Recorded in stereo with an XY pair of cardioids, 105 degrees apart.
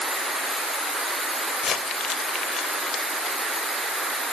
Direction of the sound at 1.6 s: 60° left.